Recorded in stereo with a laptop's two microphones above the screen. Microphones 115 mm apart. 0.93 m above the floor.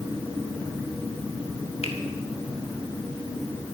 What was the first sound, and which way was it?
A finger snap, 65° left (ahead or behind).